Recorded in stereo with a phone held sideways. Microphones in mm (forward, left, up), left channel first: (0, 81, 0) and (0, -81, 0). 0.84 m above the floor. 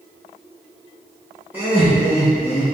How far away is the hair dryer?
I don't hear a hair dryer.